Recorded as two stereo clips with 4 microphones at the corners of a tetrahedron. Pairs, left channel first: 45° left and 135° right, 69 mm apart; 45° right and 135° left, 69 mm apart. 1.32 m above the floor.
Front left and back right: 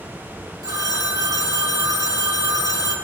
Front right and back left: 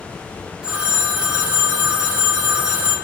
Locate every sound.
0.6 s a phone ringing: 150° right, 2 m